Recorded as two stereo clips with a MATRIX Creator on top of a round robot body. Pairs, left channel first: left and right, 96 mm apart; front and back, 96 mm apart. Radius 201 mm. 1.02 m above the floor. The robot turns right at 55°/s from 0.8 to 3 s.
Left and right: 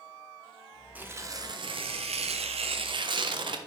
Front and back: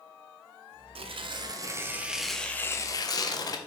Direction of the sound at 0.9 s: 165° right.